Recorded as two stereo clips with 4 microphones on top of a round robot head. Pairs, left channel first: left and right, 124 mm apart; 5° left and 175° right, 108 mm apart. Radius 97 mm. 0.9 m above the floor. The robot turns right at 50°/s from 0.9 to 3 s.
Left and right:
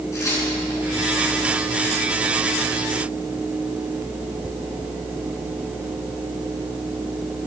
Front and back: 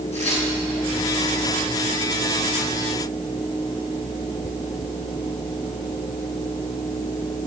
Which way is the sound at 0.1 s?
25° left.